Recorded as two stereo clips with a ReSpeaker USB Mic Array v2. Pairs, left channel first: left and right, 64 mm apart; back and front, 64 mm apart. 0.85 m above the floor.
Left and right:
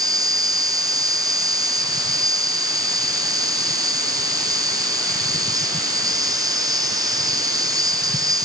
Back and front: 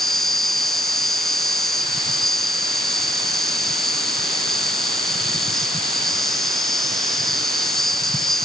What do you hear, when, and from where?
0.0 s an insect: 95° right